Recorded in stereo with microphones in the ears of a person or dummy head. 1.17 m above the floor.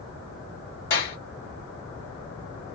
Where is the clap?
55° left (ahead or behind), 2.5 m.